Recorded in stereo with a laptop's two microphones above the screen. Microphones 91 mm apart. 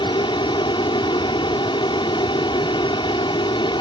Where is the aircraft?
65° left (ahead or behind).